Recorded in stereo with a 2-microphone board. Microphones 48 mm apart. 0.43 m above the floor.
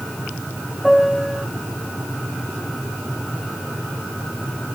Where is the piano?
5° left (ahead or behind).